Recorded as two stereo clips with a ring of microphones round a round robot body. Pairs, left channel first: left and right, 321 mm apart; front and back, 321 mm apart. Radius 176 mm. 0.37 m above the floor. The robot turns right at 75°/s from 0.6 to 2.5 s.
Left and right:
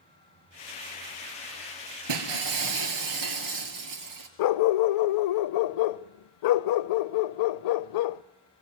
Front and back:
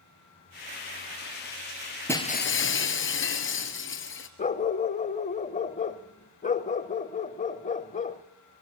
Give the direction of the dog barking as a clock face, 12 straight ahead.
10 o'clock.